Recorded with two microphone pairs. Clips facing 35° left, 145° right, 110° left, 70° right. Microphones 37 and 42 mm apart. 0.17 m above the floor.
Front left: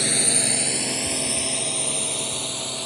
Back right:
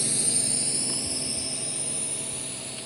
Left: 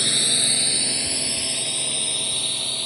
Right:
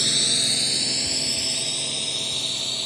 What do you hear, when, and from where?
0.0 s a drone: 30° left; by 2.9 s 25° left